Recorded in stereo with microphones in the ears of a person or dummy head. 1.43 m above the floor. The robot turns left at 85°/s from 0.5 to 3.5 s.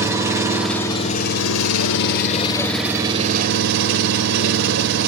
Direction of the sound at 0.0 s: 165° right.